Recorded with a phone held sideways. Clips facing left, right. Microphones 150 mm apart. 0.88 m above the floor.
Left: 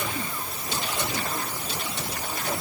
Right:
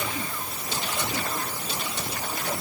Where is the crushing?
No crushing in this recording.